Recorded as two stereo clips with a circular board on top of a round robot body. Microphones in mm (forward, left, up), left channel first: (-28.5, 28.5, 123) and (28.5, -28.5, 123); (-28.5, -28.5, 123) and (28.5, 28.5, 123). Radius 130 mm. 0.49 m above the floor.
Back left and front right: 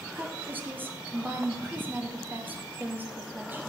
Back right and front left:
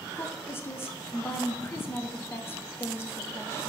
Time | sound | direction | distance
0.1 | a woman speaking | 95° right | 1.3 m